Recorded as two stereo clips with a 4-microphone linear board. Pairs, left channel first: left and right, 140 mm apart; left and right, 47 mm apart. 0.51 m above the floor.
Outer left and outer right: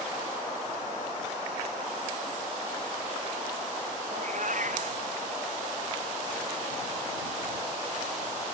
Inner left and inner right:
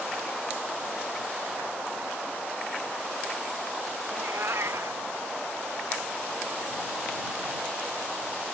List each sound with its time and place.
4.1 s a cat meowing: 65° right (ahead or behind)